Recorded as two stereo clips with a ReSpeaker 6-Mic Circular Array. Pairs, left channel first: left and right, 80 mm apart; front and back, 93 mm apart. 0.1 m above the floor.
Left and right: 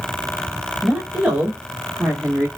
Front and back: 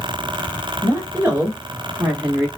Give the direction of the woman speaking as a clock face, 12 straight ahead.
6 o'clock.